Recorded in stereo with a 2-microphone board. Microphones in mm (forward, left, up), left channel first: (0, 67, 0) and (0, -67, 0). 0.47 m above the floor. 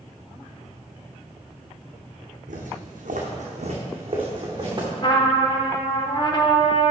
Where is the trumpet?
40° left (ahead or behind), 1.1 m.